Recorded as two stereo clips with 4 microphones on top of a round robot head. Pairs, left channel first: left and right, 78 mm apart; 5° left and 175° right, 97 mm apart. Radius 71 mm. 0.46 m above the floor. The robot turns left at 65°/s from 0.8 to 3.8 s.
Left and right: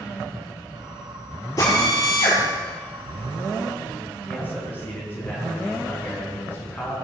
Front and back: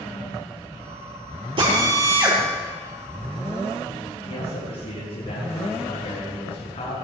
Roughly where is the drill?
Behind left.